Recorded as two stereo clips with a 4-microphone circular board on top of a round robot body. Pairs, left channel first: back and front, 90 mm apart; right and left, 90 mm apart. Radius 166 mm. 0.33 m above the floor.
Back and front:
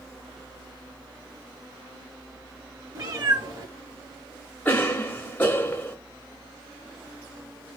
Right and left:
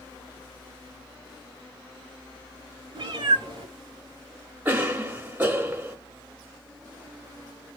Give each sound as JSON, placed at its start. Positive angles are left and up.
{"t": 3.0, "sound": "a cat meowing", "azimuth_deg": 50, "distance_m": 1.8}
{"t": 4.7, "sound": "a cough", "azimuth_deg": 135, "distance_m": 1.1}